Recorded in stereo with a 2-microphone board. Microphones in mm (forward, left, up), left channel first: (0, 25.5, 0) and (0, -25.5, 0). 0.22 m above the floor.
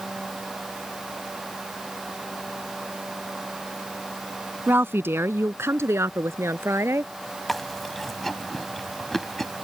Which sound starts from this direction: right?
A woman speaking, at 4.7 s.